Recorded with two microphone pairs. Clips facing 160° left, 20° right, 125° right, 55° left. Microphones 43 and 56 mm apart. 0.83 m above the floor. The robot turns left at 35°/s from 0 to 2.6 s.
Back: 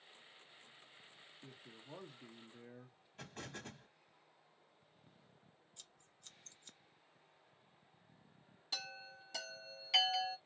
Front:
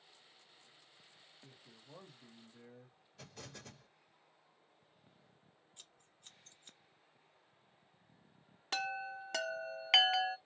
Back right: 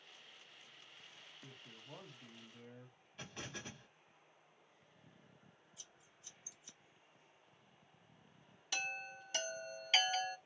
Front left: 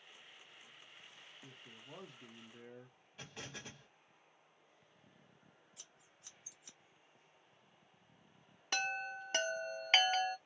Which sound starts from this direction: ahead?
A chime, at 8.7 s.